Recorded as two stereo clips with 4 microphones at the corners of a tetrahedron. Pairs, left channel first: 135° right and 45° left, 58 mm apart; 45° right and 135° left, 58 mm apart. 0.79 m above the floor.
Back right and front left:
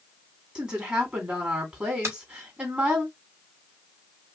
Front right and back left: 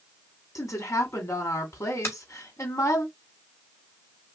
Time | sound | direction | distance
0.6 | a woman speaking | 25° right | 2 m
2.0 | a finger snap | 5° right | 2.5 m